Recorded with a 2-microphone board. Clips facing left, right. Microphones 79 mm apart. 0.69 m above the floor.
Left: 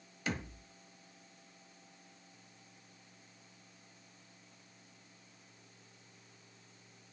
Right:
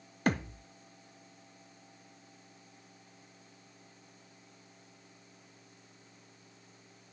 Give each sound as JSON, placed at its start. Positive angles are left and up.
{"t": 0.3, "sound": "a thud", "side_deg": -50, "distance_m": 0.7}